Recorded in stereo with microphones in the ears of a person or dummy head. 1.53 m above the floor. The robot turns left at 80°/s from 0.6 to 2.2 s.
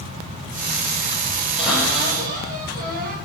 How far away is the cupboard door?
About 3.5 m.